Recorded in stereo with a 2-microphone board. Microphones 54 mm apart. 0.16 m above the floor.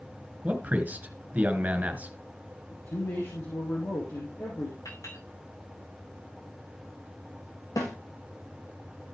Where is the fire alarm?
I don't hear a fire alarm.